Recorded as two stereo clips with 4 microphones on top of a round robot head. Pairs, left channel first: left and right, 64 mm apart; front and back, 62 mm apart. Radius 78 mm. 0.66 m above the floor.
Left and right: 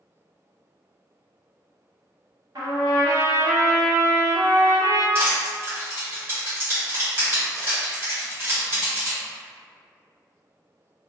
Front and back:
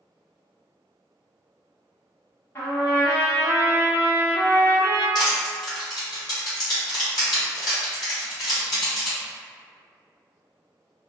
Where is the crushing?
35° right, 1.2 m.